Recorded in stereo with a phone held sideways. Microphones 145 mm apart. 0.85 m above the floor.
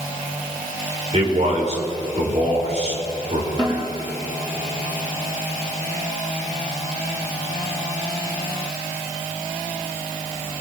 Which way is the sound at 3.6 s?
35° right (ahead or behind).